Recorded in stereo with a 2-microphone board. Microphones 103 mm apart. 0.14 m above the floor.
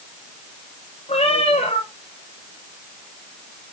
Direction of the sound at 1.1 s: 65° left (ahead or behind).